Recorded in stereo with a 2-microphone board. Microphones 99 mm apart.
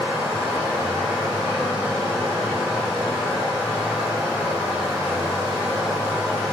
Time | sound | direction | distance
0.0 | running water | 5° right (ahead or behind) | 1.5 m